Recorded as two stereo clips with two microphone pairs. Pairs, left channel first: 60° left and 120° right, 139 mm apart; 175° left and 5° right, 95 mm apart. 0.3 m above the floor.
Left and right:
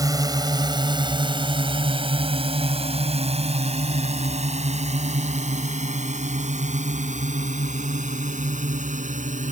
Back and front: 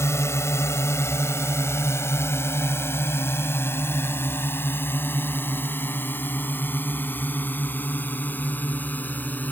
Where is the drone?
160° right; by 9.5 s 115° right.